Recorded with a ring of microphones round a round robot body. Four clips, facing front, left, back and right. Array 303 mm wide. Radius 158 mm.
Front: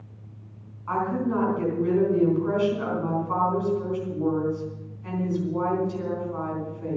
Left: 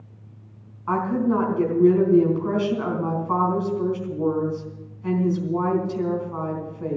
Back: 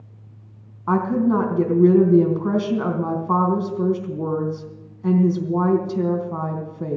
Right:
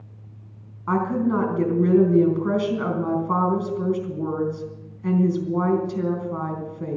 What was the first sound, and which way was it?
A woman speaking, 160° right.